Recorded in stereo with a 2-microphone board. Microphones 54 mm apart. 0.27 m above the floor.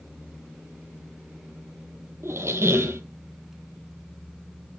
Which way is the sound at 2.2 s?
55° right (ahead or behind).